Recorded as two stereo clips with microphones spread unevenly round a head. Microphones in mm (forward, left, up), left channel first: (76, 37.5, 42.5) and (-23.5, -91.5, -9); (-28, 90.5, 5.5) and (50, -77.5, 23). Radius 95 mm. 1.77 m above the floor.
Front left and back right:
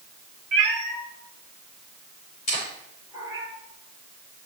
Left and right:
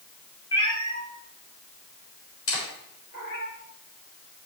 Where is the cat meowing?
170° right, 3 m; by 3.5 s 145° left, 3 m.